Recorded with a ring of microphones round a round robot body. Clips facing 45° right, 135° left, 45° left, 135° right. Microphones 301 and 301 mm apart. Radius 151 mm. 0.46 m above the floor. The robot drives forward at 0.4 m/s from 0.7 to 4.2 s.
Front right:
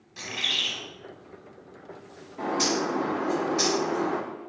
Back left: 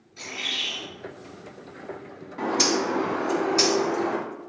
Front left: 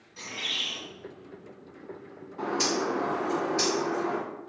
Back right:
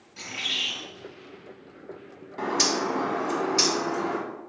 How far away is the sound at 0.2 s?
About 1.4 m.